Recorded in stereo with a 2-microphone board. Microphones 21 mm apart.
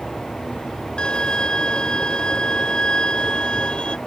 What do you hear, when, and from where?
1.0 s a violin: 45° left (ahead or behind)